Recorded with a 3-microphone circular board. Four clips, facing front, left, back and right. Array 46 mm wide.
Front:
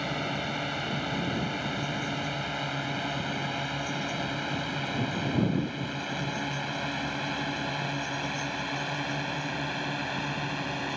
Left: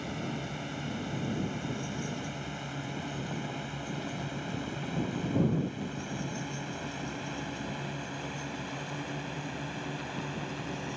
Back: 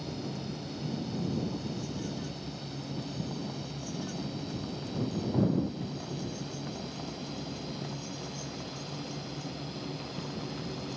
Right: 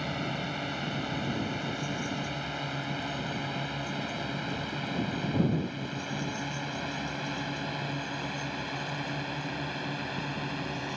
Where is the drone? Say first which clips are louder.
Right 3 dB, front 7 dB; 20° right; by 11.0 s 15° right.